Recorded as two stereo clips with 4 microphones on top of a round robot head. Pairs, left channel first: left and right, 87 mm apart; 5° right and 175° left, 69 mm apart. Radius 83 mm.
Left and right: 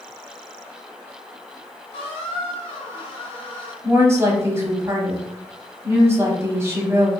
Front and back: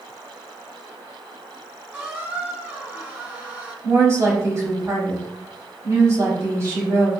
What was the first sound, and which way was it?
A squeak, 110° left.